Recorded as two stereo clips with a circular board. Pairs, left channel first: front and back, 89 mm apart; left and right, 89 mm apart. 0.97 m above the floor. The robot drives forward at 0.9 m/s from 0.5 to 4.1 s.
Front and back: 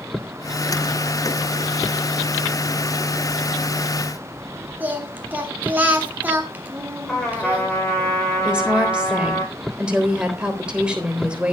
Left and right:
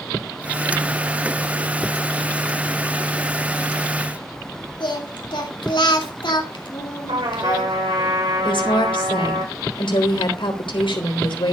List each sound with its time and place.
4.8 s singing: 110° left, 3 m
7.1 s a trumpet: 85° right, 9.5 m
8.4 s a woman speaking: 100° left, 3.5 m